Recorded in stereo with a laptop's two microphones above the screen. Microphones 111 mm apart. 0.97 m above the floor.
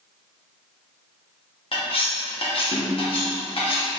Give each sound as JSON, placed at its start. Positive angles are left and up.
{"t": 1.7, "sound": "cutlery clinking", "side_deg": 55, "distance_m": 0.7}